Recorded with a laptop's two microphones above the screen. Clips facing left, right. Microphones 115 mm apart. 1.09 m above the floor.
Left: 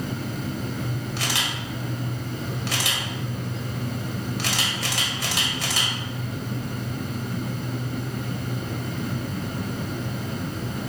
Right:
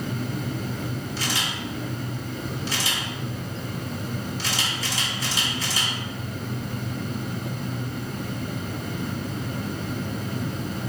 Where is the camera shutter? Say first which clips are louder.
Even; 65° left (ahead or behind), 3 m.